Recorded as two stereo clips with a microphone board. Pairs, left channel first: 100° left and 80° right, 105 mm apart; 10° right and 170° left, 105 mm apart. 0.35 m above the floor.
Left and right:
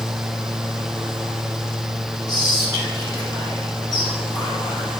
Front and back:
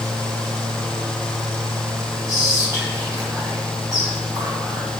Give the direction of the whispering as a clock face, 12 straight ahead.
8 o'clock.